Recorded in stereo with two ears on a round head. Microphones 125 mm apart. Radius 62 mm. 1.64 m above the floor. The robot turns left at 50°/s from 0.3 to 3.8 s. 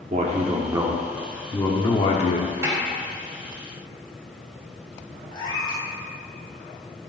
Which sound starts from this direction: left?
A cat meowing, at 5.3 s.